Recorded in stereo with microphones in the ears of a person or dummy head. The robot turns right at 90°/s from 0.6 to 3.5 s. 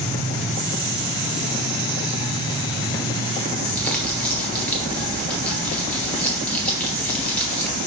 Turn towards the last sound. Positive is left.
turn(degrees=5)  # may be behind; listen again after turning